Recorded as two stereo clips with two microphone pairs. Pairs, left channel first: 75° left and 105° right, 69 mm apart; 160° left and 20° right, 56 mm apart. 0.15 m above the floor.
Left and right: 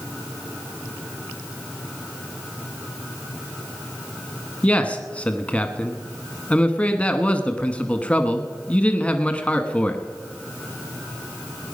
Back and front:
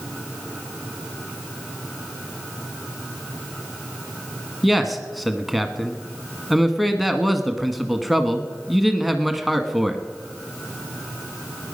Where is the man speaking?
65° left, 1.0 m.